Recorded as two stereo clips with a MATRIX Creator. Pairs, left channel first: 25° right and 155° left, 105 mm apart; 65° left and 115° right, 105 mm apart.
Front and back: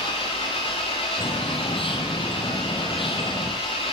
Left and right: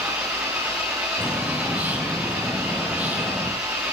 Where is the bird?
40° right, 5 m.